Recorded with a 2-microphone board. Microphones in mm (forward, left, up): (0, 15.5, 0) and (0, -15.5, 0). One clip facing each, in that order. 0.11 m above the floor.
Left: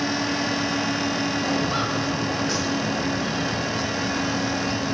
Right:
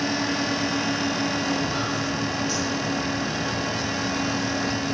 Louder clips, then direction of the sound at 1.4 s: Left 2 dB; 30° left (ahead or behind).